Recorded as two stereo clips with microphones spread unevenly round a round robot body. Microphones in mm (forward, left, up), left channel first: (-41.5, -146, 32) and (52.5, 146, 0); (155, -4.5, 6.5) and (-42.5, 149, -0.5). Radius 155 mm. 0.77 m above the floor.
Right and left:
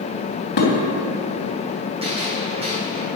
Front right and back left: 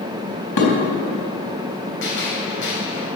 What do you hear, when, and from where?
0.6 s dishes clattering: 50° right, 3 m
2.0 s a gunshot: straight ahead, 4.5 m